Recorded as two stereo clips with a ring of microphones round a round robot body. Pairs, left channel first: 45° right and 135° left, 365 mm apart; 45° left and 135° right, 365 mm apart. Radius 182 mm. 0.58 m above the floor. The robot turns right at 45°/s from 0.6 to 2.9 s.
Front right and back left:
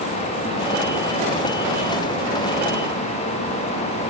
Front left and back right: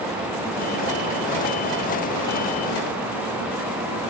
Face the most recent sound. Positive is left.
No sound to turn to.